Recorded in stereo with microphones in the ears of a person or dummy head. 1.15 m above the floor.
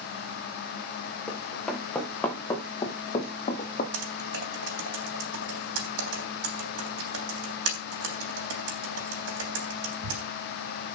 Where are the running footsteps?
Centre (ahead or behind), 4.5 m; by 3.8 s 40° left (ahead or behind), 2.5 m.